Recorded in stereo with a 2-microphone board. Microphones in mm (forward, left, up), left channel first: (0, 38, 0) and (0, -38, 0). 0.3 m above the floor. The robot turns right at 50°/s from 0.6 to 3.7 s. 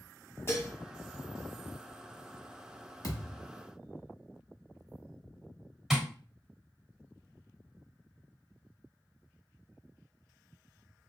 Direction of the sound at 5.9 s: 5° right (ahead or behind).